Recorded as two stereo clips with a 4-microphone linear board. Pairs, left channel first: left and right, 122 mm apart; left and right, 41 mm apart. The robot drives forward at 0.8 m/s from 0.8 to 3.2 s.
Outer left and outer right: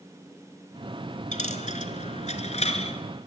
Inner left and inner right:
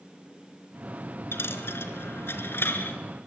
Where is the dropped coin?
75° left (ahead or behind), 1.8 m; by 3.0 s 55° left (ahead or behind), 2 m.